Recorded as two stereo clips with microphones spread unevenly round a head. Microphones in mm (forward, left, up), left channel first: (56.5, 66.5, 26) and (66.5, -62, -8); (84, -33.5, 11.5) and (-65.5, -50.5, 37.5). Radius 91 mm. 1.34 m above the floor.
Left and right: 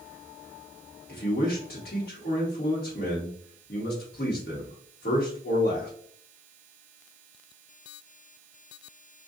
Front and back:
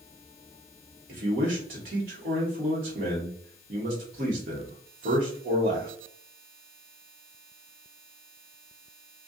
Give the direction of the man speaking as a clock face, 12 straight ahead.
7 o'clock.